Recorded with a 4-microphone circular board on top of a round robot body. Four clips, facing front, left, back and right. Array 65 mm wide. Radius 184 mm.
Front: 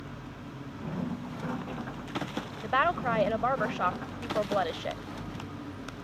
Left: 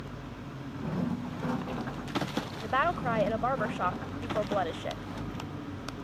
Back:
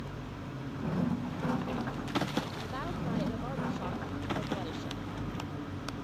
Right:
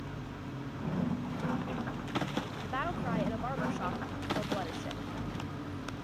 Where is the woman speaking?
30° left.